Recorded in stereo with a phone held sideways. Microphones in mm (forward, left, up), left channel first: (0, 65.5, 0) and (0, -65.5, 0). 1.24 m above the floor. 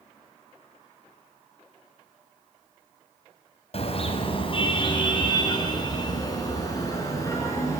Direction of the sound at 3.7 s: 50° left (ahead or behind).